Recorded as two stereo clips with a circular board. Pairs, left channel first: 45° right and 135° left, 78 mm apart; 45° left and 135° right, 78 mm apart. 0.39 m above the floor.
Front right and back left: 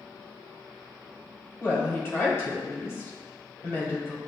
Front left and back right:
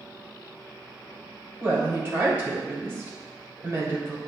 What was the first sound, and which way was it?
A woman speaking, 85° right.